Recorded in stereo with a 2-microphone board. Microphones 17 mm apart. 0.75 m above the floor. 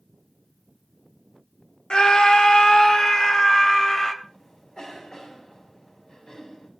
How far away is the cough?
About 5 m.